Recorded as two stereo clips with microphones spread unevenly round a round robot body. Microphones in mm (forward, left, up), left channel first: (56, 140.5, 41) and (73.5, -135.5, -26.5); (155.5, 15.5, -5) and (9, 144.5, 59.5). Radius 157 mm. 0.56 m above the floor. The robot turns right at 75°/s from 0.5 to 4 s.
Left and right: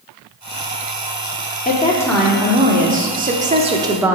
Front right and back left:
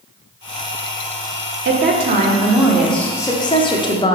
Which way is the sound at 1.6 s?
160° left.